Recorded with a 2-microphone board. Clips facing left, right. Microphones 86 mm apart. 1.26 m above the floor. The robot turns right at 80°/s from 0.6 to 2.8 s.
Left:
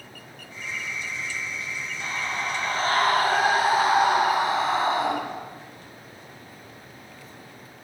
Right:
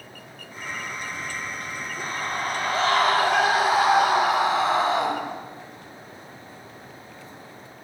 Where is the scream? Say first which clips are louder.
Right 1 dB; 155° right, 6.5 m; by 5.1 s 90° right, 6.5 m.